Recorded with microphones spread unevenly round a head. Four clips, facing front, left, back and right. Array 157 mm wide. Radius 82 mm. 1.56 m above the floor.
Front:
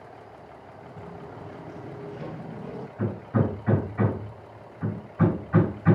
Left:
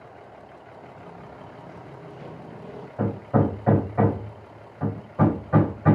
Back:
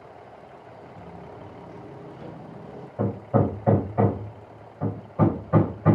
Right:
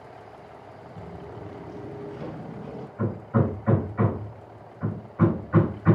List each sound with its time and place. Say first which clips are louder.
1.0 s footsteps: right 6 dB, front 2 dB; 80° right, 2.0 m; by 2.9 s 5° right, 1.7 m
3.0 s hammering: left 3 dB, back 4 dB; 130° left, 5 m